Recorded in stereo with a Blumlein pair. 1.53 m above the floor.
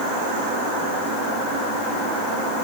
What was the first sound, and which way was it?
Only background noise.